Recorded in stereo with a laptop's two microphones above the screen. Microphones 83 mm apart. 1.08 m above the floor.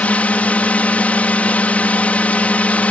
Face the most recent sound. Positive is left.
turn(degrees=15)  # may be behind; listen again after turning